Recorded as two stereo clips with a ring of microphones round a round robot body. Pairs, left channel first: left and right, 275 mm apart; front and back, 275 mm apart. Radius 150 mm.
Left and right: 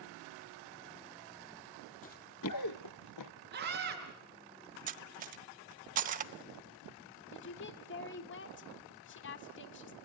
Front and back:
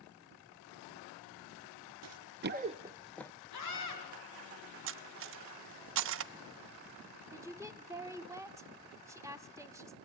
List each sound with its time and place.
2.0 s running footsteps: 155° left, 0.9 m; by 3.3 s 80° left, 1.0 m
3.5 s a scream: 35° right, 6 m
4.9 s cutlery clinking: 150° right, 0.5 m
7.3 s a woman speaking: 105° left, 1.3 m